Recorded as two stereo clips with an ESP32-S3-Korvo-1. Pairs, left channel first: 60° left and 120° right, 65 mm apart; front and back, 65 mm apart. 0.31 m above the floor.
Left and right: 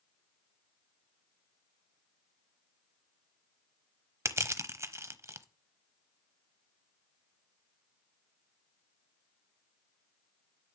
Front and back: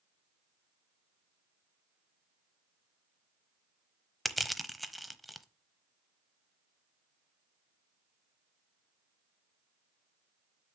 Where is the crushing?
90° right, 0.8 m.